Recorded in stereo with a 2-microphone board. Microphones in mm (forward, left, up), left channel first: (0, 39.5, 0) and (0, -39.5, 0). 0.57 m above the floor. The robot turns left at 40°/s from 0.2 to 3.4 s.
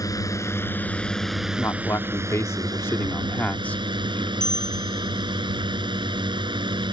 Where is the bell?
40° right (ahead or behind).